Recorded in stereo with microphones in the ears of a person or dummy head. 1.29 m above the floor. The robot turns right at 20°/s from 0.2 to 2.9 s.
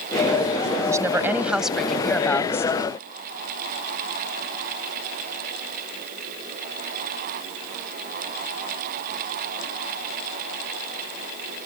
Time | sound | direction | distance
0.9 | a woman speaking | 15° right | ?